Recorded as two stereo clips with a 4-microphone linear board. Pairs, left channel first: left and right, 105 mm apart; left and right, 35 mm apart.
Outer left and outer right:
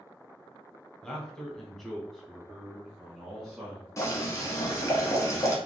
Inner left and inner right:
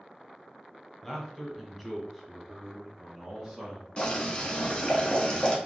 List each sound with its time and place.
1.0 s a man speaking: 5° left (ahead or behind), 1.1 m; by 3.9 s 5° right (ahead or behind), 1.5 m
4.0 s boiling: 30° left (ahead or behind), 1.0 m